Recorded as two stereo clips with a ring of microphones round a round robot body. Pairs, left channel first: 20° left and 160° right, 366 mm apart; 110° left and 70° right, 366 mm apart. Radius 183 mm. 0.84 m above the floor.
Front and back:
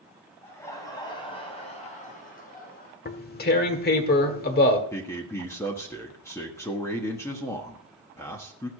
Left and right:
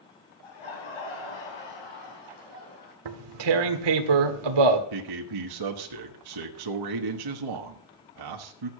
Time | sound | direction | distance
0.4 | laughter | 105° left | 6 m
3.0 | tearing paper | 45° right | 1.5 m
4.9 | a man speaking | 60° right | 1.3 m